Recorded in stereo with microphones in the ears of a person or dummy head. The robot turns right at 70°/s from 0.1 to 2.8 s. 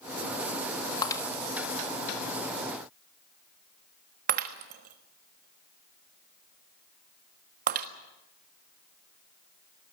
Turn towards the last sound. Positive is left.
turn(degrees=-50)  # may be behind; listen again after turning